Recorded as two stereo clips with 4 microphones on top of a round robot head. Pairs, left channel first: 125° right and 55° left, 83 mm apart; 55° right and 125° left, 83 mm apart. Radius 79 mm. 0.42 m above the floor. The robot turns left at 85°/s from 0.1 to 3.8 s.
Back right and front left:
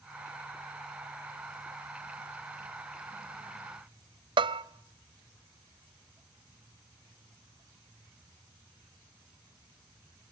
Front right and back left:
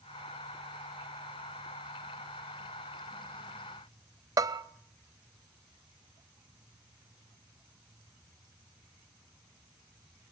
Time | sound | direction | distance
4.4 | a bell | 75° left | 1.1 m